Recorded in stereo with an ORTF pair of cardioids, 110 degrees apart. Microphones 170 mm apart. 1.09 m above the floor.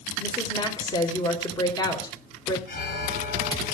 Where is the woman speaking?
25° left, 3.5 m.